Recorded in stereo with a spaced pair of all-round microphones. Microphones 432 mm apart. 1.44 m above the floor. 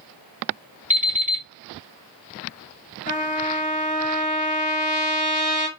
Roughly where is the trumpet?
Centre.